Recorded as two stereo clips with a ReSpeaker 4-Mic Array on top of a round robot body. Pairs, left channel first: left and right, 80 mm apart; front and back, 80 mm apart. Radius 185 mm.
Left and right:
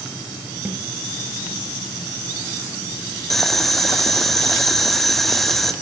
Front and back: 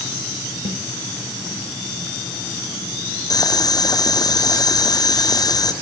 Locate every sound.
0.7 s a snare drum: 20° right, 3.5 m
3.3 s boiling: straight ahead, 1.7 m